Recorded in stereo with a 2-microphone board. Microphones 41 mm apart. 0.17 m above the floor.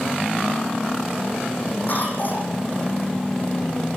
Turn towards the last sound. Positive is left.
turn(degrees=45)  # may be behind; listen again after turning